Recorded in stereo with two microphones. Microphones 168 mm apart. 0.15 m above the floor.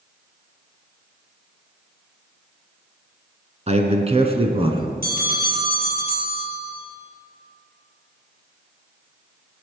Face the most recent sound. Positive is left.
turn(degrees=-65)  # may be behind; listen again after turning